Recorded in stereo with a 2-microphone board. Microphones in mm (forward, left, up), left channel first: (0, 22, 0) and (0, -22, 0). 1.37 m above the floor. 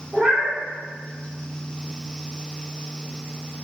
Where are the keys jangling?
No keys jangling in this recording.